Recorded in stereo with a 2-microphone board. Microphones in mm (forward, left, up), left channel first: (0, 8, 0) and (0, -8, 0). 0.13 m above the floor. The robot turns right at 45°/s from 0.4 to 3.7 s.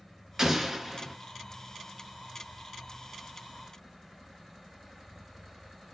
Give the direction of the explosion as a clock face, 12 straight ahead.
2 o'clock.